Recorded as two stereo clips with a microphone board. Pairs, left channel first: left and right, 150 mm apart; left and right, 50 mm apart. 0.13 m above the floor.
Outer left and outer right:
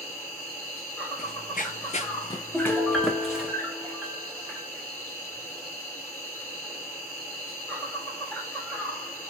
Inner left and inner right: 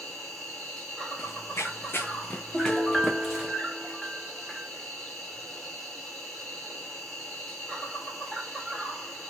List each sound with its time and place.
0.0 s an insect: 10° left (ahead or behind), 2 m
1.2 s running footsteps: 85° left, 0.8 m; by 3.5 s 10° right (ahead or behind), 1.2 m
2.5 s a piano: 10° right (ahead or behind), 0.9 m